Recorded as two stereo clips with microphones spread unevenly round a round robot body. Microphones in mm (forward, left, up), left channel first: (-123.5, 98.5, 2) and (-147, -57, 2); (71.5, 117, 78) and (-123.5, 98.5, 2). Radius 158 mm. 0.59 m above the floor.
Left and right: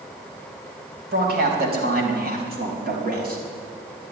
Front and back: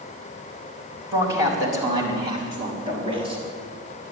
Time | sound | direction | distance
1.1 | a man speaking | 100° right | 4.5 m